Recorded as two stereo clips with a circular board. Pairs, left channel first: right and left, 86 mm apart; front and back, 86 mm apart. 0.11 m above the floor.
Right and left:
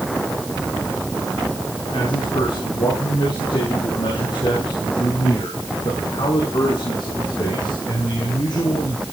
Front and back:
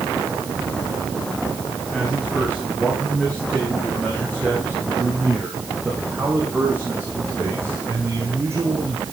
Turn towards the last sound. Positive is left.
turn(degrees=-125)